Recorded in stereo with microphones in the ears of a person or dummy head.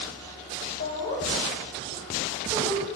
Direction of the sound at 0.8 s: 60° left (ahead or behind).